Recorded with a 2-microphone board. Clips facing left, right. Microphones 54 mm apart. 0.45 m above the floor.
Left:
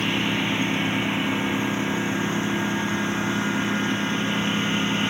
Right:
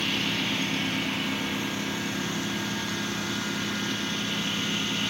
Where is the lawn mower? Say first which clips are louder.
Left 5 dB; 20° left (ahead or behind); by 5.1 s 25° left (ahead or behind).